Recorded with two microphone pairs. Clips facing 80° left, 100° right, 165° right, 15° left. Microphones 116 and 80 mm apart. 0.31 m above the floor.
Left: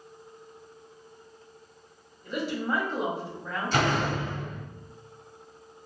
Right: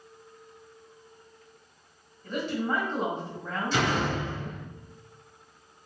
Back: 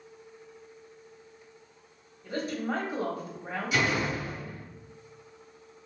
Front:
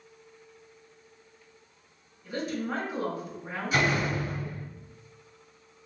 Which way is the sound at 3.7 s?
60° left.